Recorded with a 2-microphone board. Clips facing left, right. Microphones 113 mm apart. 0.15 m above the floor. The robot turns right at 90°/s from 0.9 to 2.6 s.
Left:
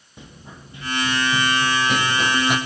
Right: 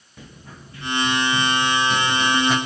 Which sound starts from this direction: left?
Running footsteps, at 0.2 s.